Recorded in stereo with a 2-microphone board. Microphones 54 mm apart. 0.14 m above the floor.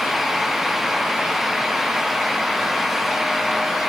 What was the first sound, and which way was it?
Only background noise.